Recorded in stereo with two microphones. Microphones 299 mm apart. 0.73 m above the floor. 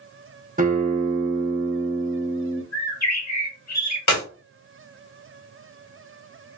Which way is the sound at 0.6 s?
25° right (ahead or behind).